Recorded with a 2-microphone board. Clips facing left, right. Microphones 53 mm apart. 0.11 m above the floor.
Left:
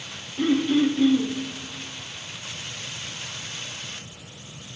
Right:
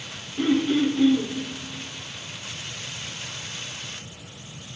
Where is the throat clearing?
55° right (ahead or behind), 4.5 m.